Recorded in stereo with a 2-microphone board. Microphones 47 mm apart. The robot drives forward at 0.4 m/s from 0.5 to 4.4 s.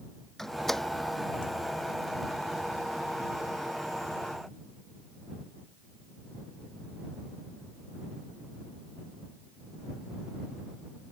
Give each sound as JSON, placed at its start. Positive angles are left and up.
{"t": 0.4, "sound": "a door slam", "side_deg": 5}